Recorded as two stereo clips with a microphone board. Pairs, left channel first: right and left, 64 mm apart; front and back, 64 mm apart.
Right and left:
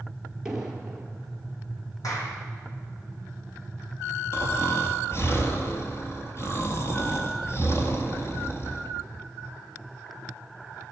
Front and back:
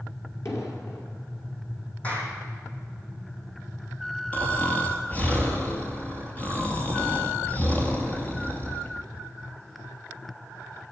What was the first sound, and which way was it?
An explosion, 10° left.